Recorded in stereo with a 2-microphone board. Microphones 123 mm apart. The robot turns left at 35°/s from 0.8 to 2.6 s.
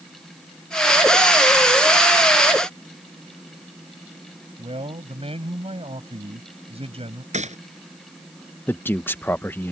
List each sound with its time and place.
4.6 s a man speaking: 55° right (ahead or behind)
7.3 s a gunshot: 70° right (ahead or behind)
8.7 s a man speaking: 15° left (ahead or behind)